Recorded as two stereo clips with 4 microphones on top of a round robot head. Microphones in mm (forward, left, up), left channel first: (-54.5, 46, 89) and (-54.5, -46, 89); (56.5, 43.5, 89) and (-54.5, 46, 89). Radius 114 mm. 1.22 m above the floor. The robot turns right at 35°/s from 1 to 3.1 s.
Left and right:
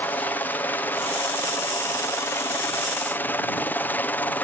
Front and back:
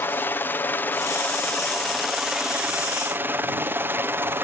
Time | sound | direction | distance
0.0 | a helicopter | 45° left | ?